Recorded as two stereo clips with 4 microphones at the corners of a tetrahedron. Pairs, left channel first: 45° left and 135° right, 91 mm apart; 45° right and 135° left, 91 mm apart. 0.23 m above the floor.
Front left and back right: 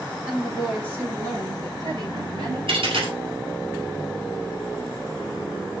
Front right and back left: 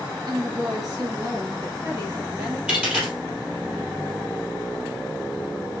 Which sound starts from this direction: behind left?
A woman speaking, at 0.3 s.